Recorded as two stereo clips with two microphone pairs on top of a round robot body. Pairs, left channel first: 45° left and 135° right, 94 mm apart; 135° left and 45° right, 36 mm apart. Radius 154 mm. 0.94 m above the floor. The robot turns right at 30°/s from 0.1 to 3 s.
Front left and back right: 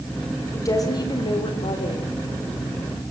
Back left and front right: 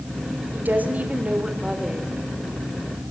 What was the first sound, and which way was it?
A woman speaking, 15° right.